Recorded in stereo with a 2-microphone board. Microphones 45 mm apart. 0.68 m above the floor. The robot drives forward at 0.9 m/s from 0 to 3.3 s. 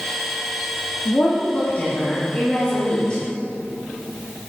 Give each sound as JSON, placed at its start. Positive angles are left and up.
{"t": 1.1, "sound": "a woman speaking", "side_deg": 45, "distance_m": 1.4}